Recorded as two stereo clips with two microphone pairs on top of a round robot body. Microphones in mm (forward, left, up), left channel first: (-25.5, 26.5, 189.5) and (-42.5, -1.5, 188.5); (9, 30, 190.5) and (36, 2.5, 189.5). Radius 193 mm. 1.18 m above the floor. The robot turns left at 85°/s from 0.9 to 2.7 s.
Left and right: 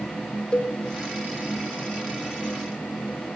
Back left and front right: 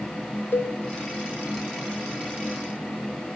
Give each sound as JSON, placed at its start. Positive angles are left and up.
{"t": 0.5, "sound": "a cowbell", "azimuth_deg": 115, "distance_m": 0.7}